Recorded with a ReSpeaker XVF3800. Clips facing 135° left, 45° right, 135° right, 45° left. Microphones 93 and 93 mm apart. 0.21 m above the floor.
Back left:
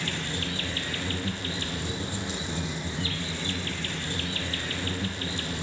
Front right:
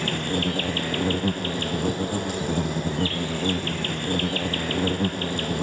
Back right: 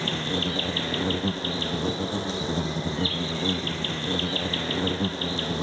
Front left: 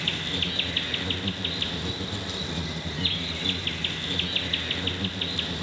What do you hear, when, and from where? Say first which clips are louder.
0.0 s an insect: front right 8 dB, back right 5 dB; 80° right, 1.5 m